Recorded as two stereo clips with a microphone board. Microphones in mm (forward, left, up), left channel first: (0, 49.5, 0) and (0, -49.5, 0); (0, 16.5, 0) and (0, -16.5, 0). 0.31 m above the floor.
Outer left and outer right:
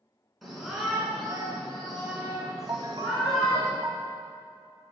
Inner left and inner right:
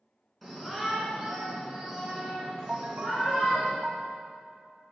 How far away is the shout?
About 3 m.